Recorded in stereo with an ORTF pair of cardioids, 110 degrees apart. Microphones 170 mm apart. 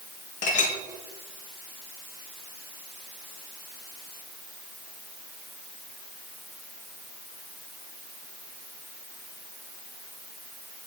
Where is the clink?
50° left, 1.3 m.